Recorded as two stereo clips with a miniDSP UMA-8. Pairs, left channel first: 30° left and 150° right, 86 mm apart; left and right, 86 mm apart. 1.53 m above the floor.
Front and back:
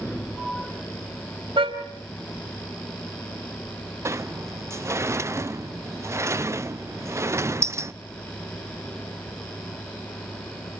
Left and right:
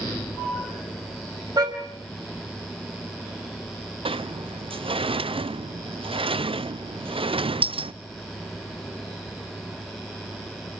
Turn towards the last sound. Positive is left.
turn(degrees=-90)